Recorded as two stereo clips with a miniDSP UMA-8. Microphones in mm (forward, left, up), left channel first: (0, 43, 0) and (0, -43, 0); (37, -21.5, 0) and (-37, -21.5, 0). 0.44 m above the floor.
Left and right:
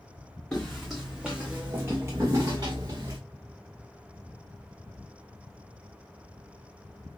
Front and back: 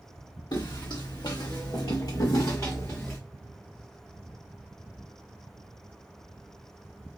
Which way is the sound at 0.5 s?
10° left.